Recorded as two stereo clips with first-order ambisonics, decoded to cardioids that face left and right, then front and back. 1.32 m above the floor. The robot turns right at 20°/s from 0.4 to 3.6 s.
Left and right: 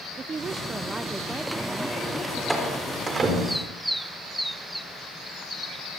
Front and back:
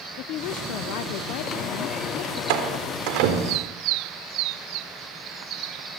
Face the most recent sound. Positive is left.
turn(degrees=-155)